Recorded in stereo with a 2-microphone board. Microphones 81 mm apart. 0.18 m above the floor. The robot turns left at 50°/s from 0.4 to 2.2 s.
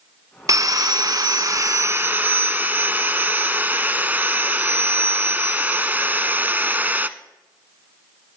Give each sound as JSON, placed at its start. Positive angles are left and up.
{"t": 0.5, "sound": "sawing", "azimuth_deg": -65, "distance_m": 0.6}